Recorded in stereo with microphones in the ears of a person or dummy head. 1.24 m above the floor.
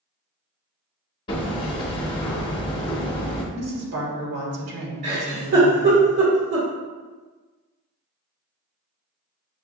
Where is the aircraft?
I don't hear an aircraft.